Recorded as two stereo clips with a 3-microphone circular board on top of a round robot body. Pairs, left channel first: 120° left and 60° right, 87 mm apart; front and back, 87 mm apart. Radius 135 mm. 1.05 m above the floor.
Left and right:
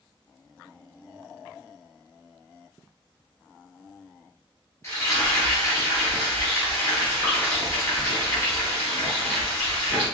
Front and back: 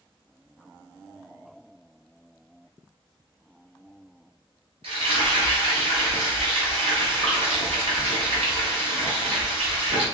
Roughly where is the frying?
Behind.